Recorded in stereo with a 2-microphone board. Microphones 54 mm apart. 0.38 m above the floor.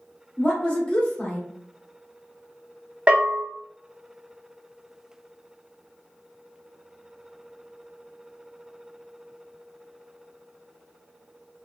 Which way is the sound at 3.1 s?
20° right (ahead or behind).